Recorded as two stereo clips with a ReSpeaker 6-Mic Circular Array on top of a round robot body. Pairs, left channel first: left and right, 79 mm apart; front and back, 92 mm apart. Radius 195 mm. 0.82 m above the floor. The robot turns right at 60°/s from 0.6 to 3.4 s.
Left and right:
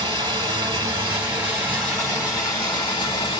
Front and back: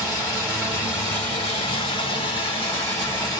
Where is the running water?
85° right, 0.8 m; by 3.4 s 85° left, 0.8 m.